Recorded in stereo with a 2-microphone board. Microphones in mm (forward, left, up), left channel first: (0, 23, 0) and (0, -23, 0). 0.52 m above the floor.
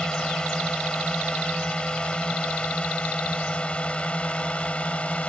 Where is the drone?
20° left (ahead or behind); by 5.3 s 30° left (ahead or behind).